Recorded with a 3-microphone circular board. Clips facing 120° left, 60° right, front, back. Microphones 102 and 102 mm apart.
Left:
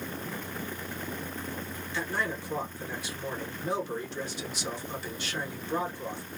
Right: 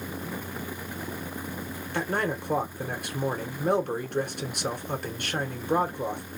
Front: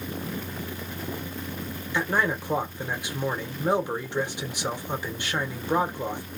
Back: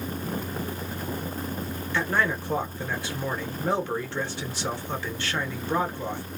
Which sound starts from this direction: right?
A man speaking, at 1.9 s.